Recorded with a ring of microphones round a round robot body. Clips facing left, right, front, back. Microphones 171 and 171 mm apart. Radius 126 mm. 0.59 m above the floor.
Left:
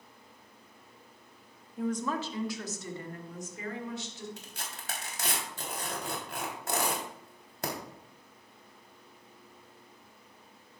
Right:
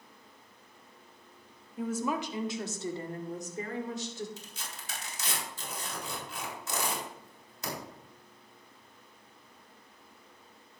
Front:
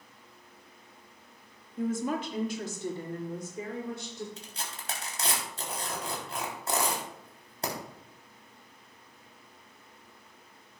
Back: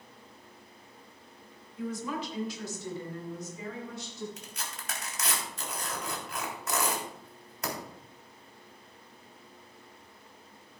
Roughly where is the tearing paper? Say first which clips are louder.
Left 1 dB, front 1 dB; ahead left.